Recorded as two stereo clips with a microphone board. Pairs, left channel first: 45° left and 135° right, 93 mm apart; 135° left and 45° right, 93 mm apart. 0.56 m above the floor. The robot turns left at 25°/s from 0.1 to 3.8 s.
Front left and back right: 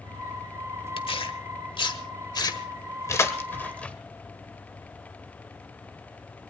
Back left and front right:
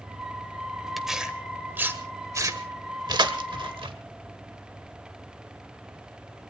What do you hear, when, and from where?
1.0 s tearing paper: 45° left, 1.6 m; by 4.0 s 30° right, 1.6 m